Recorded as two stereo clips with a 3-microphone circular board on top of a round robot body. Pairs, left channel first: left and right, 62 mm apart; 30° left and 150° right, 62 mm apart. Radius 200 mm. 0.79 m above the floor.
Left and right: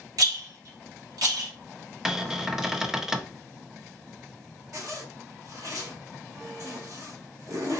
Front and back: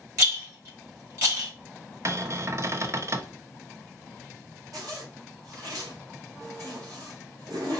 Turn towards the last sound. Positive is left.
turn(degrees=-125)